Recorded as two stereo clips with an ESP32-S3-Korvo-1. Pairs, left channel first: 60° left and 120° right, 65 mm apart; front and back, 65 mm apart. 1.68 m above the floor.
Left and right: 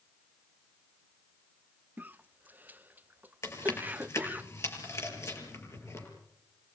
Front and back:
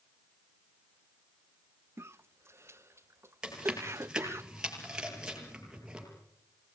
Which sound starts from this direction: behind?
A cough, at 2.0 s.